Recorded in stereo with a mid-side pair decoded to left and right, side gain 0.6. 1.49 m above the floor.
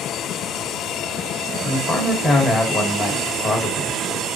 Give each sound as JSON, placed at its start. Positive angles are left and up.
{"t": 1.6, "sound": "a man speaking", "azimuth_deg": 30, "distance_m": 1.7}